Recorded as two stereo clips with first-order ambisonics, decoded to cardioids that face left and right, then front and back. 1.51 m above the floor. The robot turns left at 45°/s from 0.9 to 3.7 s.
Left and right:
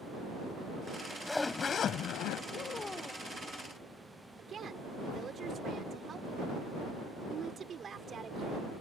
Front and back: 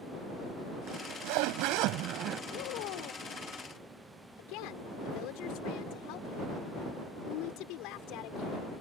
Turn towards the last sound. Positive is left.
turn(degrees=-25)